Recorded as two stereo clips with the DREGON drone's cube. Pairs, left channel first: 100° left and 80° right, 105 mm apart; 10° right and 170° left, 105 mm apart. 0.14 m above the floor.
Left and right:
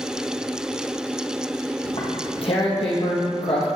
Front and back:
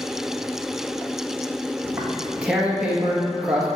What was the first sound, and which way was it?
Tearing paper, 85° left.